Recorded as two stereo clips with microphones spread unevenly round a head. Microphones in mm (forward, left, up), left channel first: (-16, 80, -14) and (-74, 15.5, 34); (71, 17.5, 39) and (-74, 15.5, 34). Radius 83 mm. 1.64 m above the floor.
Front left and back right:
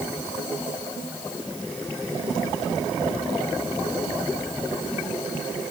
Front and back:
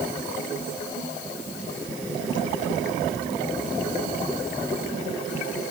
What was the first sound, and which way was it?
Only background noise.